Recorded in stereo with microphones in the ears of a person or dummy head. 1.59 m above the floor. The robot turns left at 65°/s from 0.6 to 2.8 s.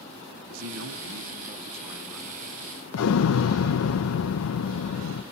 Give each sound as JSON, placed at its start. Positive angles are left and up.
{"t": 0.5, "sound": "a man speaking", "azimuth_deg": -80, "distance_m": 1.1}
{"t": 2.9, "sound": "an explosion", "side_deg": 80, "distance_m": 0.7}